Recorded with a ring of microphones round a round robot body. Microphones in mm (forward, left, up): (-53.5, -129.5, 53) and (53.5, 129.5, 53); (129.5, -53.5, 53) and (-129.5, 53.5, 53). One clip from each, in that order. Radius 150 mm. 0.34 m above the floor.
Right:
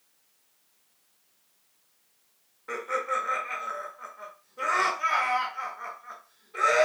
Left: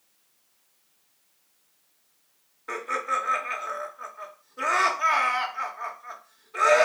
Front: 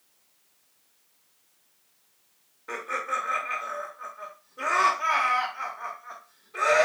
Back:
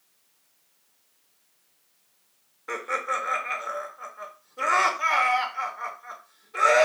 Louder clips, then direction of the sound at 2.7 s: Left 1 dB, back 2 dB; 120° left.